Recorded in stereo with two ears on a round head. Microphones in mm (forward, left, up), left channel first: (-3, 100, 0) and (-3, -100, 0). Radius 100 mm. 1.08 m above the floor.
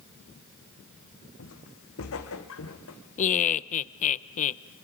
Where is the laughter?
35° left (ahead or behind), 0.6 m.